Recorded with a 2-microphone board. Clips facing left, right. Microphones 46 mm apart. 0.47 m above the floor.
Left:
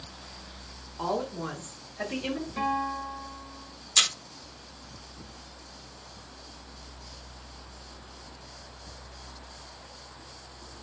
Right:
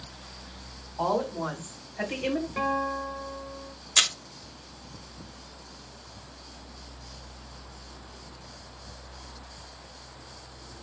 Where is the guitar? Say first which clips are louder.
Right 1 dB; 30° right (ahead or behind), 1.8 m.